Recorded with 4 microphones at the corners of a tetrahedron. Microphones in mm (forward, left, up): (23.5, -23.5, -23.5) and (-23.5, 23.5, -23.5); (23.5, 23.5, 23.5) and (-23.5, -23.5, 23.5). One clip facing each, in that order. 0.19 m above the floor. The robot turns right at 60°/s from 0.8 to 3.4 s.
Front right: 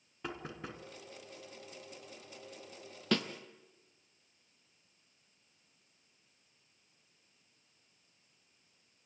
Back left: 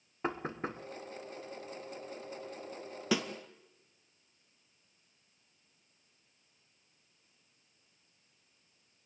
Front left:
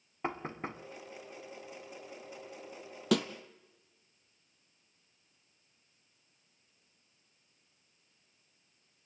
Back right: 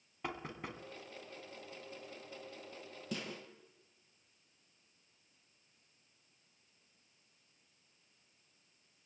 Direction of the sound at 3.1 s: 55° left.